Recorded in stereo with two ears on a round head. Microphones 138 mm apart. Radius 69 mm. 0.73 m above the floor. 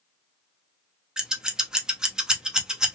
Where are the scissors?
5° right (ahead or behind), 0.6 m.